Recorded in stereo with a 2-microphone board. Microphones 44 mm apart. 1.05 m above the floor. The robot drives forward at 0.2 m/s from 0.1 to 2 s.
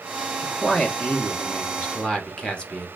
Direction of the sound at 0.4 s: 25° left (ahead or behind).